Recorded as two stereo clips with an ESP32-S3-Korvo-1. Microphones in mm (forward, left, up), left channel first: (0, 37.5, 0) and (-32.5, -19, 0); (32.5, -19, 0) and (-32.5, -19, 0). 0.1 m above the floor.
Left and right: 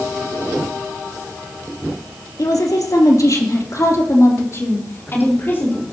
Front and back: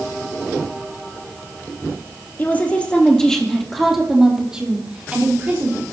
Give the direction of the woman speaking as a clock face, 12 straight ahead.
10 o'clock.